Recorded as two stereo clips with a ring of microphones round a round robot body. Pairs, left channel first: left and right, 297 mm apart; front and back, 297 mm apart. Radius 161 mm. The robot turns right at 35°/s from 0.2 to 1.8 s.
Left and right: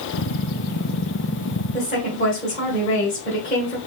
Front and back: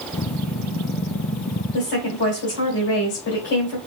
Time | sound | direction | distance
1.7 | a woman speaking | 30° left | 1.7 m